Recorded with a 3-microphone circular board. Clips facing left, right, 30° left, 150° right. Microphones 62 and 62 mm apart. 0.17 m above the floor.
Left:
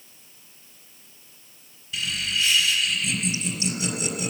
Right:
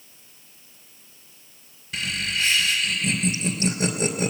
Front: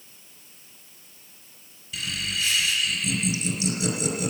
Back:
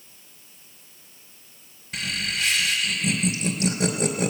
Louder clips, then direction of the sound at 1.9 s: Right 1 dB, back 2 dB; 130° right.